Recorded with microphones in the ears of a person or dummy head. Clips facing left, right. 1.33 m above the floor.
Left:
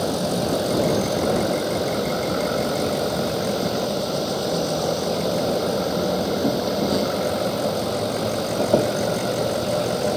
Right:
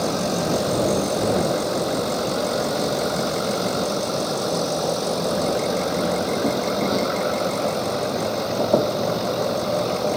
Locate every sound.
0.0 s an insect: 5° left (ahead or behind)